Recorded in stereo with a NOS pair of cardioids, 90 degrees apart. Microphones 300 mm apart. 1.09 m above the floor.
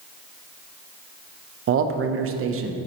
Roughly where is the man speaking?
Ahead right.